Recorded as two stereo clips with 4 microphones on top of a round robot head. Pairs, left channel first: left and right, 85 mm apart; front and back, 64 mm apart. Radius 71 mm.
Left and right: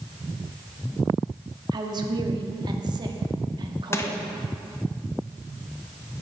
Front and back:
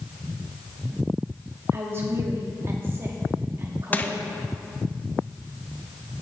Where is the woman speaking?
125° right, 1.6 m.